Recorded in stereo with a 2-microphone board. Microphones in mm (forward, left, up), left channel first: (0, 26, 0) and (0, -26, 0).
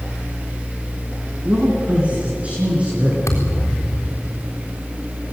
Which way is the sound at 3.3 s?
85° left.